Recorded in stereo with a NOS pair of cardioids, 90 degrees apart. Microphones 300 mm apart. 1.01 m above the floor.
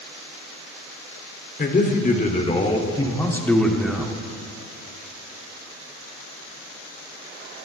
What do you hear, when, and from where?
1.6 s a man speaking: 30° left, 2.5 m; by 4.1 s 5° right, 1.9 m